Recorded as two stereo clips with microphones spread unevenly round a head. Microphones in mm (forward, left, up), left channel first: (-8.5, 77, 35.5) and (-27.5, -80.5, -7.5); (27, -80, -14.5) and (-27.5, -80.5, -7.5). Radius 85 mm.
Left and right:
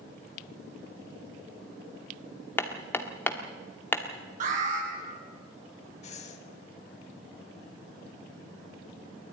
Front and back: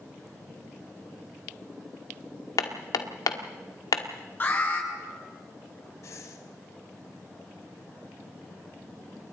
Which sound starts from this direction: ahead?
Hammering, at 2.6 s.